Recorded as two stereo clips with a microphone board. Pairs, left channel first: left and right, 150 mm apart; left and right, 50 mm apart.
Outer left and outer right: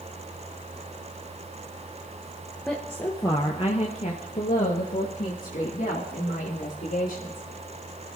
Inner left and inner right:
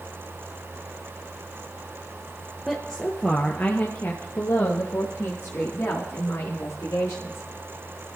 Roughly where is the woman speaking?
Centre.